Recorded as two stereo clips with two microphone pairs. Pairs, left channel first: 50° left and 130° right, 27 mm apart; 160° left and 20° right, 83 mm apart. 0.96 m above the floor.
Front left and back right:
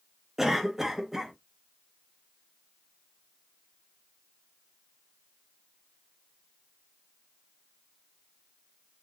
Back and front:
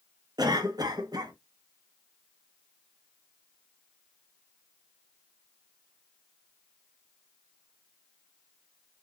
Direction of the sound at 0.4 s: 55° right.